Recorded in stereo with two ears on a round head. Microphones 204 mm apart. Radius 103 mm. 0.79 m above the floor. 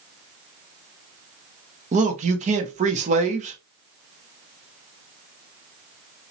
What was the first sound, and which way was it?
A man speaking, 30° right (ahead or behind).